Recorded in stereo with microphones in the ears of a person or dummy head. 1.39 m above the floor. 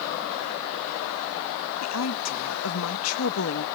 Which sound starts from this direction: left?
A woman speaking, at 1.8 s.